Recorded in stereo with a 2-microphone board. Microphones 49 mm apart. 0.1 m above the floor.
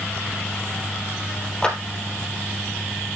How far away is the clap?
About 3 m.